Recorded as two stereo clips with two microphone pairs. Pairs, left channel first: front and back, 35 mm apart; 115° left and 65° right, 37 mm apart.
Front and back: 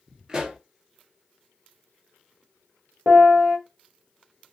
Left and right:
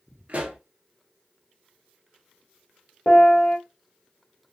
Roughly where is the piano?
Behind left.